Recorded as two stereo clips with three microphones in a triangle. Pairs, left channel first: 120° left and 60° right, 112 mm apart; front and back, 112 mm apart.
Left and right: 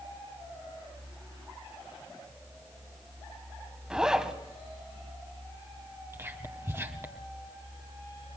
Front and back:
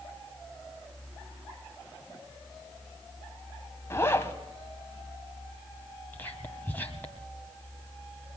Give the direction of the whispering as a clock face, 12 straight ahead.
1 o'clock.